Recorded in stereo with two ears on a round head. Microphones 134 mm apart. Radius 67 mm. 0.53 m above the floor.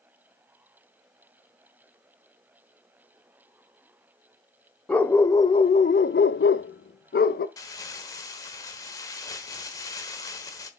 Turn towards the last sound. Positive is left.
turn(degrees=20)  # may be behind; listen again after turning